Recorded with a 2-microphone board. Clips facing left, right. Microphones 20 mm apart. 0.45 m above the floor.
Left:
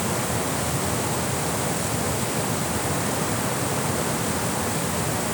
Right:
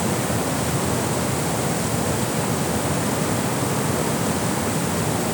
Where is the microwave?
No microwave in this recording.